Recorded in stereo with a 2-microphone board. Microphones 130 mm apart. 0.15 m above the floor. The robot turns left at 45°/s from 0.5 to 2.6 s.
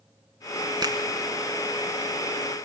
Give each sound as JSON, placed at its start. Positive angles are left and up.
{"t": 0.8, "sound": "a finger snap", "side_deg": -35, "distance_m": 1.4}